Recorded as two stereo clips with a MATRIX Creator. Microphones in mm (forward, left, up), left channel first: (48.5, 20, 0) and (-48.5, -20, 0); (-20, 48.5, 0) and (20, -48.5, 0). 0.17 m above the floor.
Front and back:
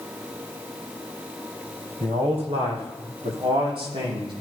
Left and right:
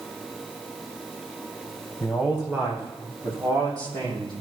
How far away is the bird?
I don't hear a bird.